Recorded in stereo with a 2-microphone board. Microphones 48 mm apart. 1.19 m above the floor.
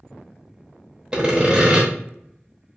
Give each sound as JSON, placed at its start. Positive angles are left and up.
{"t": 1.1, "sound": "sawing", "side_deg": -15, "distance_m": 0.8}